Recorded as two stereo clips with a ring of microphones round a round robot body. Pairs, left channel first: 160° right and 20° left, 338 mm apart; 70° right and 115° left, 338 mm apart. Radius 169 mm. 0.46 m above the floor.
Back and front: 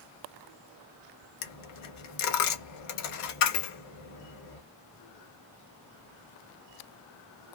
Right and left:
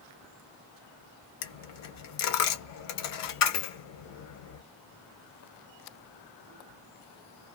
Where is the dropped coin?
115° right, 0.8 m.